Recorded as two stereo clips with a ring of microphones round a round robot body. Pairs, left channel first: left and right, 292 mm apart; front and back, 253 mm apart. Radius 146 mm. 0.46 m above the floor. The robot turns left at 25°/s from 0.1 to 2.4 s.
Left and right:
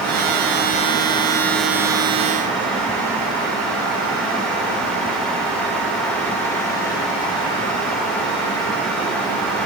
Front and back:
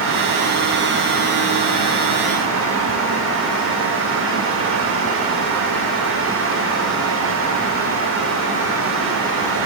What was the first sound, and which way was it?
Only background noise.